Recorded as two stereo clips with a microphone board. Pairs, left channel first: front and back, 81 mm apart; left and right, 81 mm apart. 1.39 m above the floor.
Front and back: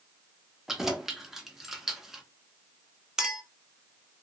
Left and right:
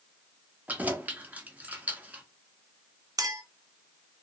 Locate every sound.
0.7 s keys jangling: 105° right, 0.6 m
3.2 s a clink: 100° right, 0.6 m